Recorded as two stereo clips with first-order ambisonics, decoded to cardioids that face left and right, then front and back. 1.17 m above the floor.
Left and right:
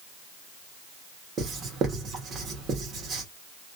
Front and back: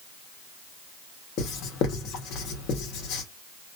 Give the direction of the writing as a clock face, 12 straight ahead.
1 o'clock.